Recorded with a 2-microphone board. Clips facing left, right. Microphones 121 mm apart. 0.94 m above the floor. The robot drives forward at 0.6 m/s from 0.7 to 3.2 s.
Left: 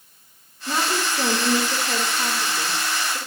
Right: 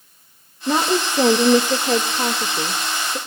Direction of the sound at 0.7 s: 55° right (ahead or behind).